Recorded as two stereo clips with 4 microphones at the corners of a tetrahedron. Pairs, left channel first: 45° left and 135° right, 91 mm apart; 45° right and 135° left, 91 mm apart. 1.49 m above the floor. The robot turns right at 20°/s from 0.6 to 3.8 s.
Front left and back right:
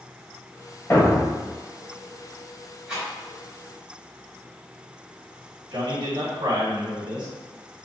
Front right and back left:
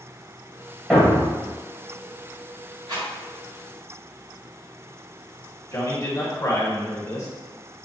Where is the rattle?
140° left, 1.8 m; by 3.1 s 145° left, 1.8 m.